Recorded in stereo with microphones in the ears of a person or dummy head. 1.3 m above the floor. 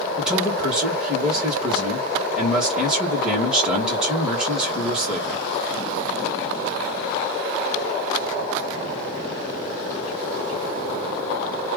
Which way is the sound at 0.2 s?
5° right (ahead or behind).